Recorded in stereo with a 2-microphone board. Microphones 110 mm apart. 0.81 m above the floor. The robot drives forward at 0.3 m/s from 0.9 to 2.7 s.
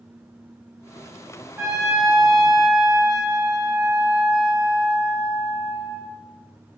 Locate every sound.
1.6 s a trumpet: 20° right (ahead or behind), 0.7 m; by 6.1 s 35° right (ahead or behind), 0.5 m